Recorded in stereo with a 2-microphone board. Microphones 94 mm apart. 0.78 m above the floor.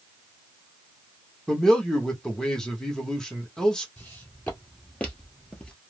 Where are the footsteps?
15° left (ahead or behind), 1.9 m; by 5.8 s 10° left (ahead or behind), 1.0 m.